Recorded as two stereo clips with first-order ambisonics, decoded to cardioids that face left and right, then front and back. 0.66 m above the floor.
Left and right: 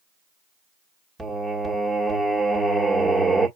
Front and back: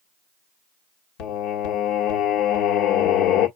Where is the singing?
10° right, 1.5 m.